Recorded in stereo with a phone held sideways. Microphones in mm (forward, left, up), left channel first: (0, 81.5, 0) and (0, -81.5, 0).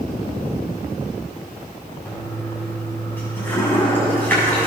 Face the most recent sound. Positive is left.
turn(degrees=10)  # may be behind; listen again after turning